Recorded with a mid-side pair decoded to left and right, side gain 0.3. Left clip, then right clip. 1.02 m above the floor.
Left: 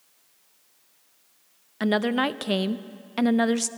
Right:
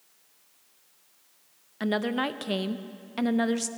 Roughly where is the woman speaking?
Ahead left.